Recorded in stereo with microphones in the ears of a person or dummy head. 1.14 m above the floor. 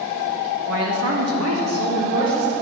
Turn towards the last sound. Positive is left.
turn(degrees=-75)  # may be behind; listen again after turning